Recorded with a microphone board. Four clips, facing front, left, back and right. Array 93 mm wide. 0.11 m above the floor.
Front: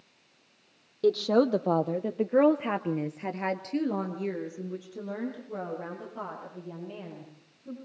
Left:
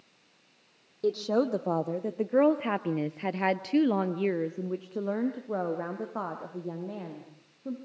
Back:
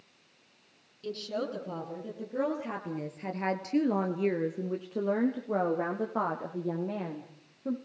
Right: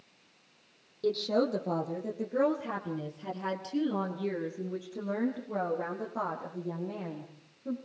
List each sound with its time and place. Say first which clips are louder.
1.0 s a woman speaking: left 2 dB, front 12 dB; 15° left, 3.5 m; by 7.8 s 155° left, 6.5 m